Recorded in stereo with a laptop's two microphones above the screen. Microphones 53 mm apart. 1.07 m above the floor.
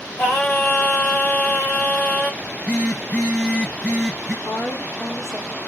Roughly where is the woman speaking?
Left.